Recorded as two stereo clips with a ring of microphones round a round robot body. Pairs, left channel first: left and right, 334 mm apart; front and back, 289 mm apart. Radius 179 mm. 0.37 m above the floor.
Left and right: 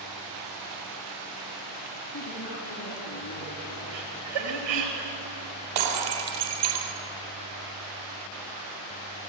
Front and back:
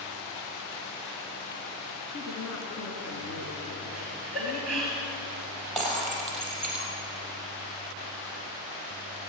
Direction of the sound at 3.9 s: 90° right.